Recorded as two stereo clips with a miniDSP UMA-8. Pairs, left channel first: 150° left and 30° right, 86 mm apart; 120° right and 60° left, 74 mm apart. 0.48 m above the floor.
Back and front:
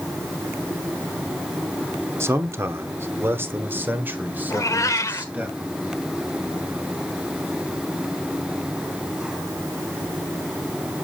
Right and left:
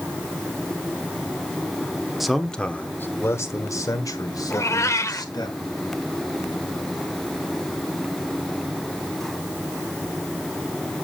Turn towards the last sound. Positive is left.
turn(degrees=-165)